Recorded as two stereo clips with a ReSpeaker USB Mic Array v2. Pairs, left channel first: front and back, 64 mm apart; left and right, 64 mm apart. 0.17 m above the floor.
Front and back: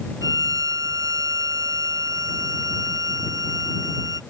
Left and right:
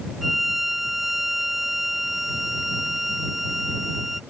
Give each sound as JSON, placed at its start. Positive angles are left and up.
{"t": 0.2, "sound": "a violin", "azimuth_deg": -175}